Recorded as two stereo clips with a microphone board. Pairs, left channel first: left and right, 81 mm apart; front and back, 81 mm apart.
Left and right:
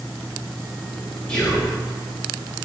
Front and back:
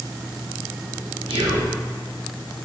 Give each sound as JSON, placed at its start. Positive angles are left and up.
{"t": 1.3, "sound": "whispering", "azimuth_deg": 170, "distance_m": 0.5}